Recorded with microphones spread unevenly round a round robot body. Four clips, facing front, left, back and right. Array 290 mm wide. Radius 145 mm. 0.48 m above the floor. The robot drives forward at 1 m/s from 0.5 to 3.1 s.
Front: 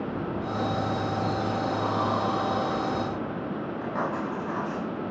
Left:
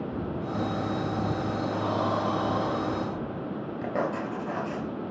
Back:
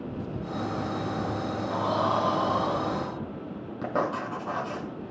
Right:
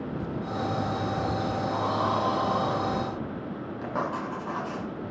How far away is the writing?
About 2 m.